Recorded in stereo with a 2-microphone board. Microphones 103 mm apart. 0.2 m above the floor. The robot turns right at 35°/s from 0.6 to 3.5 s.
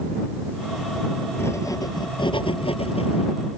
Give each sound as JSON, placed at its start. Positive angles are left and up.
{"t": 1.4, "sound": "writing", "azimuth_deg": 25}